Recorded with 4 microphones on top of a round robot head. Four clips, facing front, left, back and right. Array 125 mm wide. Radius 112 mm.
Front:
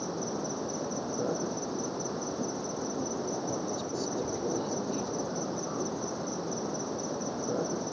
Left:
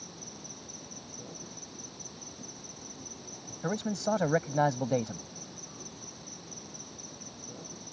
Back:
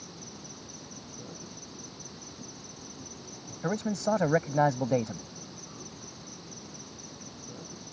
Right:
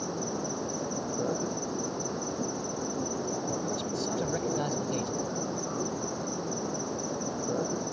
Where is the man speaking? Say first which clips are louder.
Left 1 dB, back 4 dB; 150° left.